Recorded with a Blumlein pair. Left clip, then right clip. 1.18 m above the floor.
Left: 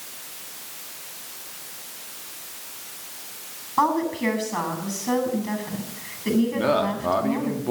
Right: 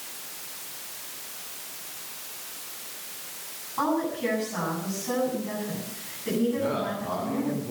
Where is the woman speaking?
65° left, 9 m.